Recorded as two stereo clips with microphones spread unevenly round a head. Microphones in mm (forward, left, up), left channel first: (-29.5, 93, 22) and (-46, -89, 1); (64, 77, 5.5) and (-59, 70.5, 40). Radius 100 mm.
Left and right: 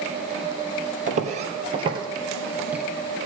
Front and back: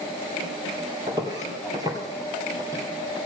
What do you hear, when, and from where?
1.1 s footsteps: 135° right, 2.5 m; by 2.8 s 175° left, 2 m